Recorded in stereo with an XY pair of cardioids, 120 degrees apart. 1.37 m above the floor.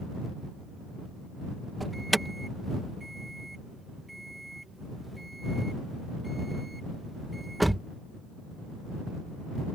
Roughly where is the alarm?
Ahead.